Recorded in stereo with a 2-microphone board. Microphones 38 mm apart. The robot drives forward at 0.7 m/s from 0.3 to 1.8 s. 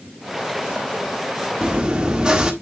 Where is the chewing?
25° right (ahead or behind), 1.3 m; by 2.5 s 20° right (ahead or behind), 1.4 m.